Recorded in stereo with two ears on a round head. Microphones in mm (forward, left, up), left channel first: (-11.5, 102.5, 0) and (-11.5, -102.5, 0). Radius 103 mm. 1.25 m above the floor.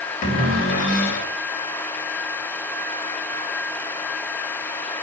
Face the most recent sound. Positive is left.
turn(degrees=35)  # may be behind; listen again after turning